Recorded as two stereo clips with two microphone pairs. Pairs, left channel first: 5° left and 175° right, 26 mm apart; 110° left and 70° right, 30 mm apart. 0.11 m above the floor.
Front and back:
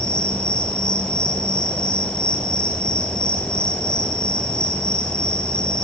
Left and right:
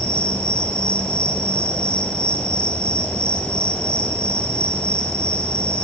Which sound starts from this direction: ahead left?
An insect, at 0.0 s.